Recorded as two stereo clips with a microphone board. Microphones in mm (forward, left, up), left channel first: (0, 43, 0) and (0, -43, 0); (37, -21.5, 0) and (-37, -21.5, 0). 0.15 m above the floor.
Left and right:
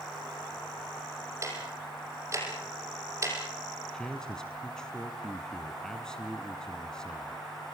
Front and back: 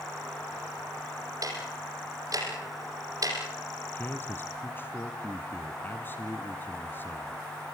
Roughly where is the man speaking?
Ahead.